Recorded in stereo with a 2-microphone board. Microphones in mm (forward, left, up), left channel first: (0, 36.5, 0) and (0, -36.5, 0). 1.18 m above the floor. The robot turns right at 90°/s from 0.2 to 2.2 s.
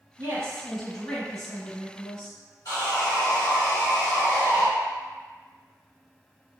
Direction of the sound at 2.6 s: 60° left (ahead or behind).